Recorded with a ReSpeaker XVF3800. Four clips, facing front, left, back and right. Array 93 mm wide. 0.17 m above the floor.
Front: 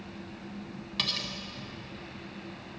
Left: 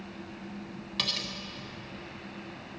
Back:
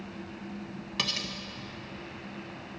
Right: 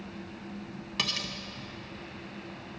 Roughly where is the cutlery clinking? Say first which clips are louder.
Right 2 dB, back 1 dB; behind right.